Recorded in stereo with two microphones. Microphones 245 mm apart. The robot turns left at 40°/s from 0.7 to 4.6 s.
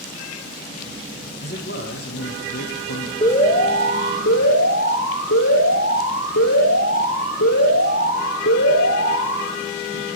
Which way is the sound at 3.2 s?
155° left.